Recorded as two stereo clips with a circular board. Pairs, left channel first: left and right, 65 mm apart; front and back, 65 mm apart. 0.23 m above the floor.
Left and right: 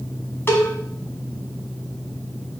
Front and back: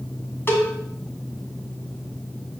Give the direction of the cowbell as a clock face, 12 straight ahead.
10 o'clock.